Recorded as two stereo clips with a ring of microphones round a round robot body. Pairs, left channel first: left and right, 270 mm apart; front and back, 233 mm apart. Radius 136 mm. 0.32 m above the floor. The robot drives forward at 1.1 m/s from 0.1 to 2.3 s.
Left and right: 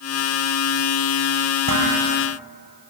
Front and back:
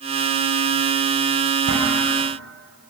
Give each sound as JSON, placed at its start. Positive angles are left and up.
{"t": 1.7, "sound": "dishes clattering", "azimuth_deg": -125, "distance_m": 5.5}